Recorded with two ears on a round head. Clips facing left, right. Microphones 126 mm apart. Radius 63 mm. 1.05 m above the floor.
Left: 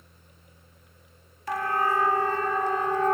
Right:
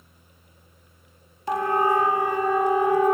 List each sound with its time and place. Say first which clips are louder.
1.5 s a siren: right 5 dB; 20° right (ahead or behind), 2 m; by 3.1 s 10° right (ahead or behind), 3 m